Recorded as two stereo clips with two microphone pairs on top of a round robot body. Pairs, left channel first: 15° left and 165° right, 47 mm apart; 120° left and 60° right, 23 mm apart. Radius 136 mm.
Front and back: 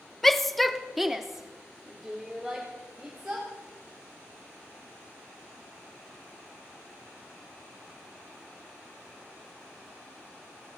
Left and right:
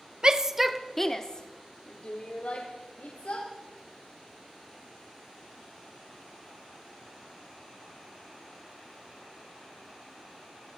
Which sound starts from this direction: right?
A shout, at 0.2 s.